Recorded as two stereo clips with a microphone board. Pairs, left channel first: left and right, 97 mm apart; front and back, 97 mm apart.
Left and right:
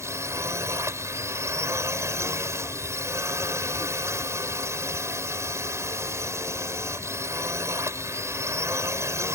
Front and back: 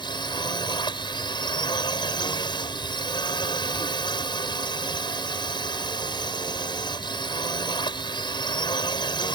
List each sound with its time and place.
0.0 s a drone: 30° right